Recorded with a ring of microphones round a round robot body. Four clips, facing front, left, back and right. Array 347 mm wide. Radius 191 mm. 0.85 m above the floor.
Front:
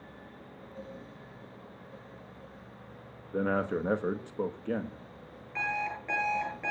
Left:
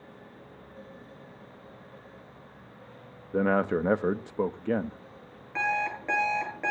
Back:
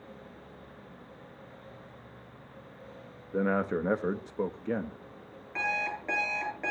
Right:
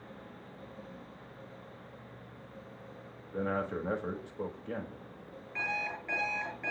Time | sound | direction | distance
3.3 | a man speaking | 95° left | 1.3 m
5.5 | an alarm clock | 110° left | 9.5 m